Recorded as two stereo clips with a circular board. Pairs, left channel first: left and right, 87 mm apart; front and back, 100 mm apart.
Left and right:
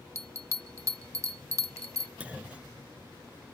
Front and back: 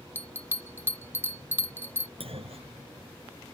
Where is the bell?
125° right.